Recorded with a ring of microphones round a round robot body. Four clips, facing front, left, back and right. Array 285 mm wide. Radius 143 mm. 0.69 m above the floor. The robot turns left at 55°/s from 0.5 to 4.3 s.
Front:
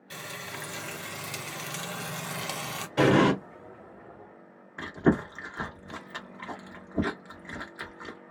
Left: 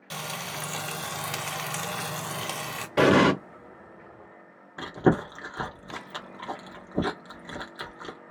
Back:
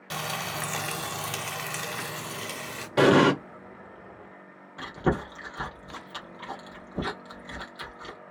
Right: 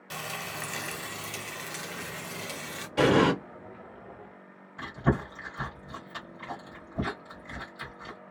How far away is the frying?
About 0.8 m.